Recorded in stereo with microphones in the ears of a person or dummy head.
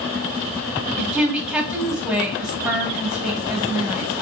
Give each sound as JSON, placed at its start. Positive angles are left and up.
{"t": 1.0, "sound": "a woman speaking", "side_deg": -5, "distance_m": 1.6}